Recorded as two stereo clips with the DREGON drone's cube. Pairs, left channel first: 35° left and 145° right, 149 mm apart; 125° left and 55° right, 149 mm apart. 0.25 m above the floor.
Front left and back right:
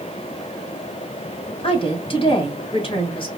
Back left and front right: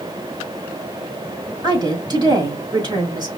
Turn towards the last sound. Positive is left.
turn(degrees=-5)